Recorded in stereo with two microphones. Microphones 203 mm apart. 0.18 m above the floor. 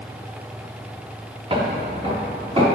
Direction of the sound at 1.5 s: 30° right (ahead or behind).